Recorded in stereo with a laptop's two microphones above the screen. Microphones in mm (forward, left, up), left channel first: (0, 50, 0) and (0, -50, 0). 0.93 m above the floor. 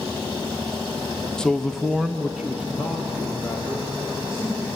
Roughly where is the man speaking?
Centre.